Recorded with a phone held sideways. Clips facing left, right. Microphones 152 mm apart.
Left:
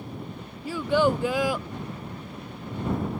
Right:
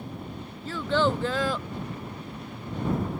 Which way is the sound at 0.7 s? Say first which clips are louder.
Left 3 dB; 10° left (ahead or behind).